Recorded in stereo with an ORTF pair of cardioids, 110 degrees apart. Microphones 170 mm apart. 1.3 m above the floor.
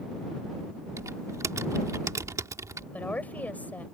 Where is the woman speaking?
10° left.